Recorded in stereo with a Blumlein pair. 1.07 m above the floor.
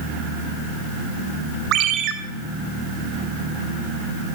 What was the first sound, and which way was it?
A ringtone, 35° right.